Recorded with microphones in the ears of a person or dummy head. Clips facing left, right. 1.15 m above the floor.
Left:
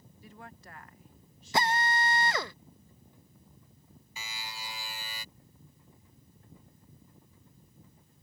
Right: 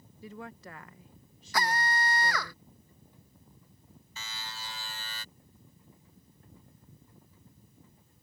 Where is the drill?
15° left (ahead or behind).